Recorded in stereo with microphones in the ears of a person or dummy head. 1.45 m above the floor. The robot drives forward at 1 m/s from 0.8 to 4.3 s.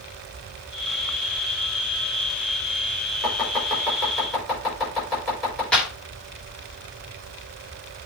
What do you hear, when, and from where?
3.2 s chopping: 5° left (ahead or behind), 4 m
5.7 s a clap: 10° left (ahead or behind), 2.5 m